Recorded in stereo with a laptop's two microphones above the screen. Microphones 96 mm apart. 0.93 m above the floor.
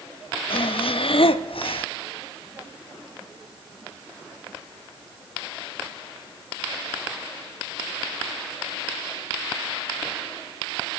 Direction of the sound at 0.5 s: 70° left (ahead or behind).